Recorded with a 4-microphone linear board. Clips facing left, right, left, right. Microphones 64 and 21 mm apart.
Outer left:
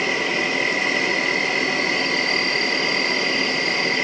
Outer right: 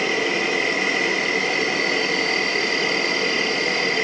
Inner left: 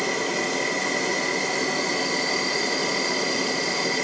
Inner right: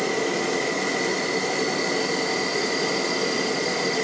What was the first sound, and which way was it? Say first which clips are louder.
An insect: even, inner right 1 dB; centre (ahead or behind).